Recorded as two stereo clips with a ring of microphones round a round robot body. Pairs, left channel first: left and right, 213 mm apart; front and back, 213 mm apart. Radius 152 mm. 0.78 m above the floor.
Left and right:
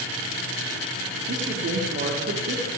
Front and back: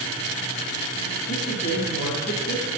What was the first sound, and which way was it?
A woman speaking, 55° right.